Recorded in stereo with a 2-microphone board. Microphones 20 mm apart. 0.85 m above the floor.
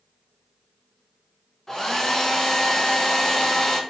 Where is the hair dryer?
25° left (ahead or behind), 0.7 m.